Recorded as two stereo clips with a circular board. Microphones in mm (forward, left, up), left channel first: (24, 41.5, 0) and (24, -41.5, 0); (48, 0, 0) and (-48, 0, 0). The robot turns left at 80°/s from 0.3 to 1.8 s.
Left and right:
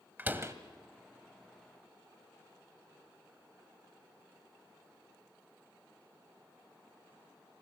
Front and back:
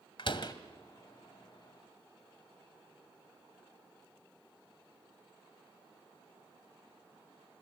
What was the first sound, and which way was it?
A door slam, 25° right.